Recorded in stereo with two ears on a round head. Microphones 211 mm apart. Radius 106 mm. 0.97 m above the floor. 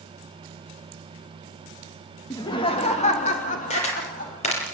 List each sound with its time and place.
2.3 s laughter: 15° left (ahead or behind), 1.5 m; by 4.7 s 35° left (ahead or behind), 5 m
3.7 s a camera shutter: 30° left (ahead or behind), 7 m